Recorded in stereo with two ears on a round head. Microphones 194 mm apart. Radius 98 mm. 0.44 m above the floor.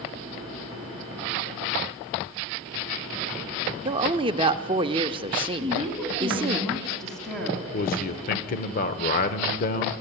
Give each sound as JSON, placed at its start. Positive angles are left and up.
{"t": 3.9, "sound": "a woman speaking", "side_deg": -25, "distance_m": 0.7}
{"t": 5.6, "sound": "a woman speaking", "side_deg": 0, "distance_m": 4.0}
{"t": 7.7, "sound": "a man speaking", "side_deg": 45, "distance_m": 1.1}